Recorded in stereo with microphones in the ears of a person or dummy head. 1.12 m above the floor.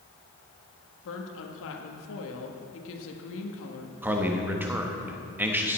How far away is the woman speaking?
About 1.3 m.